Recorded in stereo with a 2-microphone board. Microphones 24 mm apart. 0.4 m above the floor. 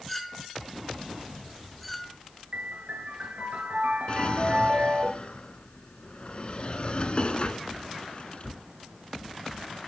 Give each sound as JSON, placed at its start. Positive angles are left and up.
{"t": 0.1, "sound": "a clink", "side_deg": 5, "distance_m": 2.5}
{"t": 2.5, "sound": "a piano", "side_deg": -85, "distance_m": 2.5}
{"t": 4.1, "sound": "a drawer", "side_deg": 45, "distance_m": 1.0}